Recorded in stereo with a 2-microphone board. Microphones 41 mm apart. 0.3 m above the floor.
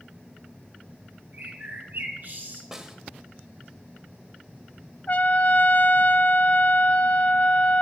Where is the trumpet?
45° left (ahead or behind), 0.7 m.